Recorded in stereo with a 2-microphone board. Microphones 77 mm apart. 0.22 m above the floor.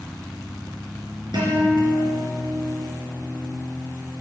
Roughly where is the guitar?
Right.